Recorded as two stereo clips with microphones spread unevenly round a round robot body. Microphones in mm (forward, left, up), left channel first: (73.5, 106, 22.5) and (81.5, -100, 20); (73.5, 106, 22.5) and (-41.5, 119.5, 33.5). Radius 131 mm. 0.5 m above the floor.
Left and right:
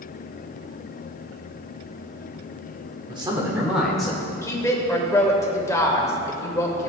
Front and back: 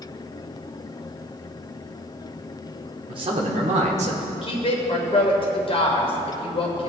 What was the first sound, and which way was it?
A man speaking, 145° right.